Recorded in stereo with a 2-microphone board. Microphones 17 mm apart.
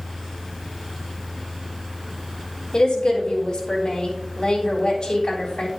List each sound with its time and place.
2.7 s a woman speaking: 50° left (ahead or behind), 3.5 m